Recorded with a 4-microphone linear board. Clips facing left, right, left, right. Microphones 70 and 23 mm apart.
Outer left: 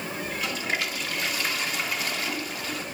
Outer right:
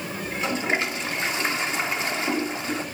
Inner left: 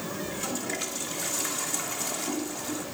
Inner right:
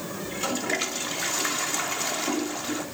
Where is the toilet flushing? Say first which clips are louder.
Outer right 6 dB, inner right 7 dB; 25° right (ahead or behind), 1.7 m.